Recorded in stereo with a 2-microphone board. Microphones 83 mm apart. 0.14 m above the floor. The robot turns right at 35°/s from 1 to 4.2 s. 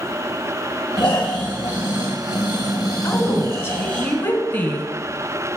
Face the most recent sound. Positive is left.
turn(degrees=20)  # may be behind; listen again after turning